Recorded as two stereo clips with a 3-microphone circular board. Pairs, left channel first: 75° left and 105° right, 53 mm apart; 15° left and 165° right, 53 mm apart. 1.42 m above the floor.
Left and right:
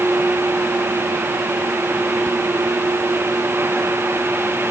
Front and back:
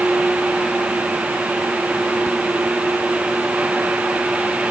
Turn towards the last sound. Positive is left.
No sound to turn to.